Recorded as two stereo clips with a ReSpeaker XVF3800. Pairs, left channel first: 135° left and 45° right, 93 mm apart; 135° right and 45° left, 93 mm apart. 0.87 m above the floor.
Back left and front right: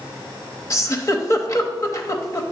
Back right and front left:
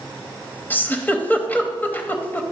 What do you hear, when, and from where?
0.7 s a giggle: 165° left, 0.8 m